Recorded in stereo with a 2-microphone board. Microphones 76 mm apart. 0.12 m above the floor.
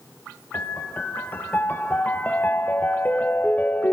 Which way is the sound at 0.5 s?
25° left (ahead or behind).